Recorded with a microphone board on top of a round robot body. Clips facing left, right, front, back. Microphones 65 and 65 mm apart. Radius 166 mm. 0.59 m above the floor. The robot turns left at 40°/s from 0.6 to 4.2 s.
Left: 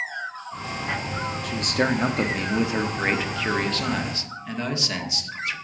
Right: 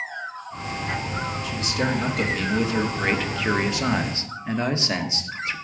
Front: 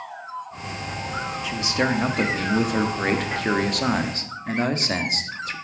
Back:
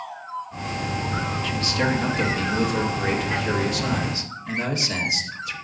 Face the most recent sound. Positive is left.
turn(degrees=-35)